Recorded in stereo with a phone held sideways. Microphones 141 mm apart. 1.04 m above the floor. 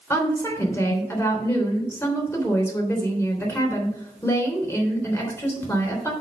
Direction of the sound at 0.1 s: 20° left (ahead or behind).